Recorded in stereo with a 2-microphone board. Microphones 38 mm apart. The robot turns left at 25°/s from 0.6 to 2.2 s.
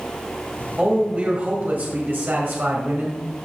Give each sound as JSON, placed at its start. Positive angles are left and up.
{"t": 0.8, "sound": "a man speaking", "azimuth_deg": -30, "distance_m": 1.9}